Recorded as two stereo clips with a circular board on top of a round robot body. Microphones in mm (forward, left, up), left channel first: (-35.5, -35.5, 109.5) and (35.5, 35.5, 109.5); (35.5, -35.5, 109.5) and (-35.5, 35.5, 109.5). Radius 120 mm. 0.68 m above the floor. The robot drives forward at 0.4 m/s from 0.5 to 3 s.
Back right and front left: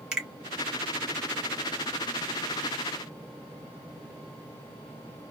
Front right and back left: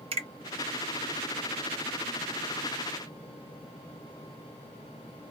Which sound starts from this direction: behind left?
A finger snap, at 0.1 s.